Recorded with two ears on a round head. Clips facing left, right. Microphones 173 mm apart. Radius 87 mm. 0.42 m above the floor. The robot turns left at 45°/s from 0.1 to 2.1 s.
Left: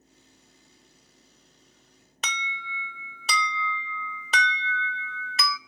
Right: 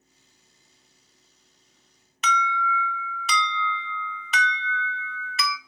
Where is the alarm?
30° left (ahead or behind), 0.6 m.